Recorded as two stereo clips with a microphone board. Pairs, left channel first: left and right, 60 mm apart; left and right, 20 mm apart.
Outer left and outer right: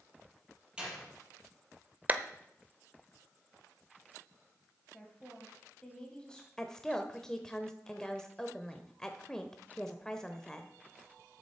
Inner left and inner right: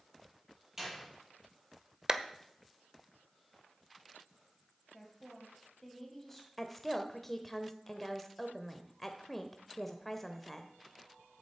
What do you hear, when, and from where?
0.8 s a door slam: 15° right (ahead or behind), 5.5 m
2.1 s a clap: 30° right (ahead or behind), 0.8 m
4.9 s a woman speaking: 15° left (ahead or behind), 2 m
6.6 s a woman speaking: 10° left (ahead or behind), 0.9 m